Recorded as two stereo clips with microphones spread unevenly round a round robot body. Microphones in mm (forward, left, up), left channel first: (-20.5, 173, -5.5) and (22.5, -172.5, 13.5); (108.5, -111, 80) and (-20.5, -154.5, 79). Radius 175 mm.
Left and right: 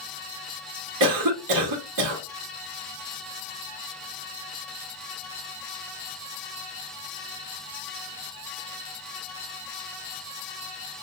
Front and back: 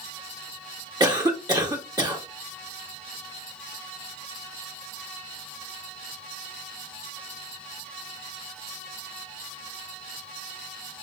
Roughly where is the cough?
Right.